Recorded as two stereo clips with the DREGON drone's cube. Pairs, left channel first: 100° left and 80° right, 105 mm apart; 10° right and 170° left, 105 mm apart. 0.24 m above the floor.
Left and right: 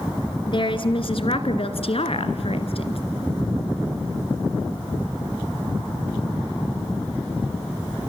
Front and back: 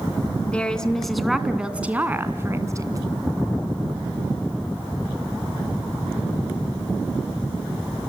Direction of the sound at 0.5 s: 65° left.